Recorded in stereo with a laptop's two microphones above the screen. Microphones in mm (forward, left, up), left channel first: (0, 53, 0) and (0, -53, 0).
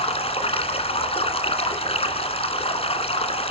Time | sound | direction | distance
0.0 | running water | 70° left (ahead or behind) | 2.0 m